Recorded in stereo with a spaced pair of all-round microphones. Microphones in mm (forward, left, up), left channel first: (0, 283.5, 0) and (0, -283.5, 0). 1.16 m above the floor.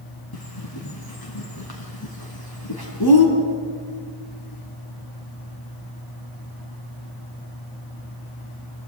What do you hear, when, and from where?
0.3 s a bird: 40° left (ahead or behind), 4 m